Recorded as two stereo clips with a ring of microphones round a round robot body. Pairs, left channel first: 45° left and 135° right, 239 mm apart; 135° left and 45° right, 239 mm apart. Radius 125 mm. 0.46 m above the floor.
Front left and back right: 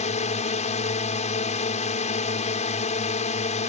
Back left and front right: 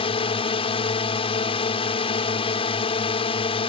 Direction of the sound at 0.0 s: 85° left.